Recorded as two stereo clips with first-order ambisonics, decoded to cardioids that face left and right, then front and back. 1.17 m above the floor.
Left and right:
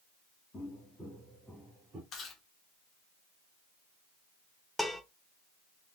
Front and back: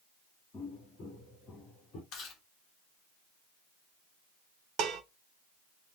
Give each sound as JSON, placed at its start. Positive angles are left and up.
{"t": 0.5, "sound": "footsteps", "azimuth_deg": 40, "distance_m": 1.3}
{"t": 2.1, "sound": "chewing", "azimuth_deg": 40, "distance_m": 1.2}
{"t": 4.8, "sound": "dishes clattering", "azimuth_deg": 175, "distance_m": 0.5}